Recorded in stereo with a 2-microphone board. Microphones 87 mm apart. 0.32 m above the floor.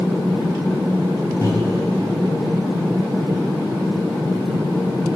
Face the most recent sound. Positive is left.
turn(degrees=30)  # may be behind; listen again after turning